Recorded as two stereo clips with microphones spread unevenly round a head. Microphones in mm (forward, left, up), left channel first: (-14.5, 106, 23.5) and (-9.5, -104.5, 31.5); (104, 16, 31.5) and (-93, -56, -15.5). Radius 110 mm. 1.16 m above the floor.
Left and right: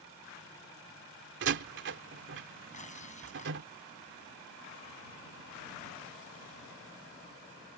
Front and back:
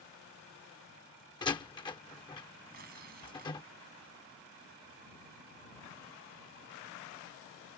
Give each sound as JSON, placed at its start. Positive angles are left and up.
{"t": 1.4, "sound": "a door slam", "azimuth_deg": -50}
{"t": 2.7, "sound": "tearing paper", "azimuth_deg": 150}